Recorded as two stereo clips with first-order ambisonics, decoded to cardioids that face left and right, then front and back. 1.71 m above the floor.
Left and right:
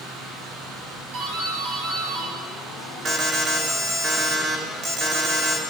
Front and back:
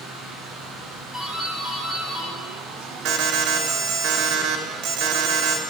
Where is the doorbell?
80° right, 8.5 m.